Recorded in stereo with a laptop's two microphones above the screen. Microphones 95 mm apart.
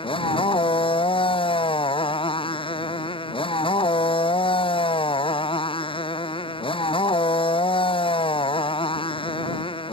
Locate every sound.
0.0 s a motorcycle: 70° left (ahead or behind)